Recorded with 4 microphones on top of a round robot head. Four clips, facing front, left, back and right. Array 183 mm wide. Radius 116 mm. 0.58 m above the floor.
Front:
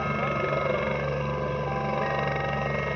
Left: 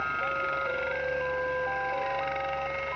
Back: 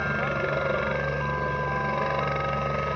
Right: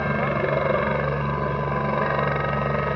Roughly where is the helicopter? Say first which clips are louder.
Right 7 dB, even; right.